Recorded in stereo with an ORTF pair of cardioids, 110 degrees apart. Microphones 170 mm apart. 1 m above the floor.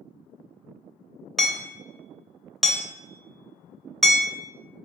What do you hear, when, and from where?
1.4 s hammering: straight ahead, 0.7 m